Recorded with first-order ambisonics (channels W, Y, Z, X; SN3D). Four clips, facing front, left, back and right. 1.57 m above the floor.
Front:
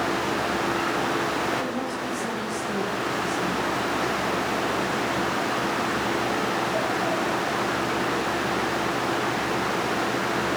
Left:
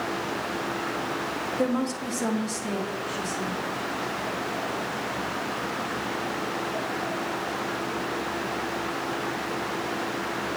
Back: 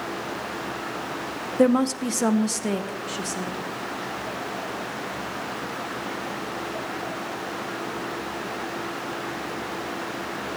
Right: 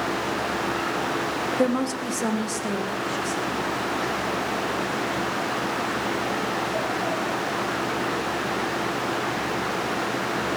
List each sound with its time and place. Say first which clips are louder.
1.6 s a woman speaking: right 2 dB, back 8 dB; 165° right, 0.9 m; by 3.6 s 175° right, 3.5 m